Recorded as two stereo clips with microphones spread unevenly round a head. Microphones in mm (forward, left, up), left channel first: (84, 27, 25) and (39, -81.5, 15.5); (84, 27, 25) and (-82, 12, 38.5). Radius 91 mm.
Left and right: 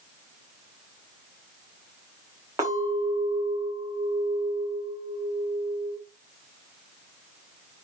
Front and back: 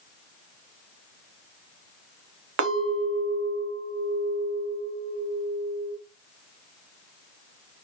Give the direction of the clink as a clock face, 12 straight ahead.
6 o'clock.